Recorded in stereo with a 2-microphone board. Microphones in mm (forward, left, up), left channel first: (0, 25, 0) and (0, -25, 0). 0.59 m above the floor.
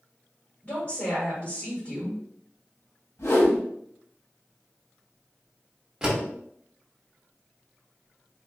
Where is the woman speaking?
45° left (ahead or behind), 1.7 m.